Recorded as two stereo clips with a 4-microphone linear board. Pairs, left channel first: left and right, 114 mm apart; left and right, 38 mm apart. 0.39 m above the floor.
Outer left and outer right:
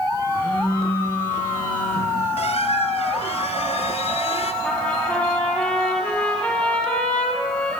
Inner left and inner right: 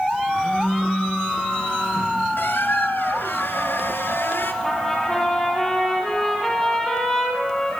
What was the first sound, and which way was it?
A phone buzzing, 50° left (ahead or behind).